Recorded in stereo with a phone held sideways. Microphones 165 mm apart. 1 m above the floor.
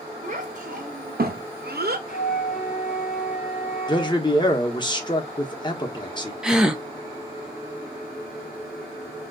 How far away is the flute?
About 1.2 m.